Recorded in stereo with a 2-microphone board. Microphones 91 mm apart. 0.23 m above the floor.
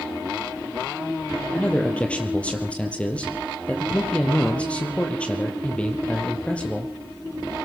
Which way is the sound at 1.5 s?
15° left (ahead or behind).